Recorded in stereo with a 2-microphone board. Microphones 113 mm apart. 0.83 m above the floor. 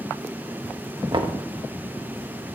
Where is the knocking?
45° right (ahead or behind), 0.6 m.